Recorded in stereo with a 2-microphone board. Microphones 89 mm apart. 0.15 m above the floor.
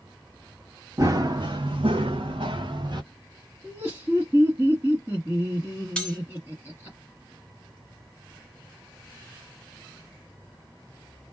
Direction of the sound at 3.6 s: 25° right (ahead or behind).